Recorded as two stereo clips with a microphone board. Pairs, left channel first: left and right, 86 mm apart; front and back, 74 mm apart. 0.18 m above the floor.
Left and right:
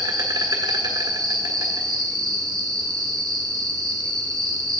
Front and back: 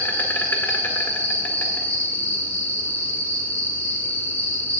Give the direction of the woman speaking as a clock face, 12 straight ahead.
No woman speaking in this recording.